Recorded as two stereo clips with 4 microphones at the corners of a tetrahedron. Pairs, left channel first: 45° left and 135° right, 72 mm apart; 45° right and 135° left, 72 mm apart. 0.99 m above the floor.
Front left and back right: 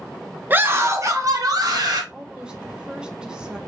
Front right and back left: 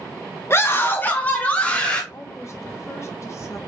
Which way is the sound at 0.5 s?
80° right.